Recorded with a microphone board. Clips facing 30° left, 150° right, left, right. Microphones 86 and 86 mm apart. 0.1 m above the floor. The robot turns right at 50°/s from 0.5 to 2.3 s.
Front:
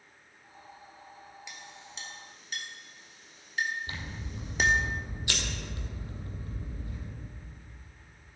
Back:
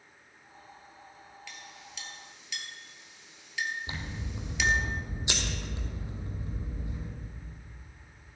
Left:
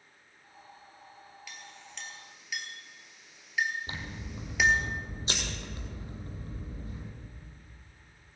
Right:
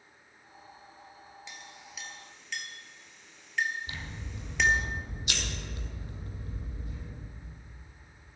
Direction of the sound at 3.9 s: 145° left.